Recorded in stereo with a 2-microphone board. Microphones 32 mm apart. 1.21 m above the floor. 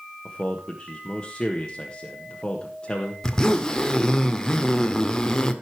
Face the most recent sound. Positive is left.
turn(degrees=20)  # may be behind; listen again after turning